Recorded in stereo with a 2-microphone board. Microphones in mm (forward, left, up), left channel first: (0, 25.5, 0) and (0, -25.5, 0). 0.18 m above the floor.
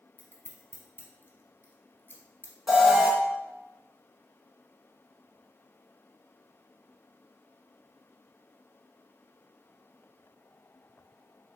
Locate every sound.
0.2 s scissors: 50° left (ahead or behind), 1.0 m
2.7 s an alarm: 5° right (ahead or behind), 1.6 m